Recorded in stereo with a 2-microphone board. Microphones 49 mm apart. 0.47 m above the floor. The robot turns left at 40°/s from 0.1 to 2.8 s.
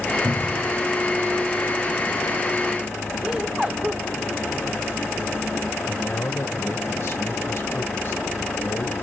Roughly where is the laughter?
Centre.